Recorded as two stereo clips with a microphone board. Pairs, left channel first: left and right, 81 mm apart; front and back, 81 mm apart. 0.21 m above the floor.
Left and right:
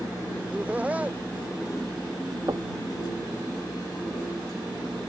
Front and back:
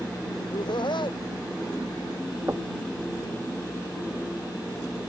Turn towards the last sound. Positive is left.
turn(degrees=-125)